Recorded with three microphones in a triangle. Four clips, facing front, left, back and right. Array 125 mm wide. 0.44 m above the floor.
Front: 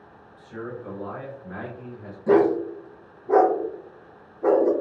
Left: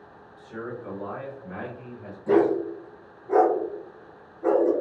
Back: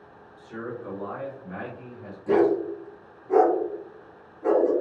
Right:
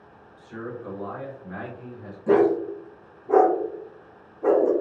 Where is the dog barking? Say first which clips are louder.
Right 1 dB, front 2 dB; 35° right, 0.6 m.